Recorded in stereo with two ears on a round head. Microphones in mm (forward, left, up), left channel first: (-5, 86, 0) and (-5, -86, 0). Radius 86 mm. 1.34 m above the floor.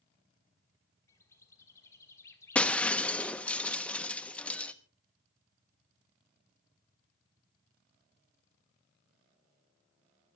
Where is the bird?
15° left (ahead or behind), 1.5 m.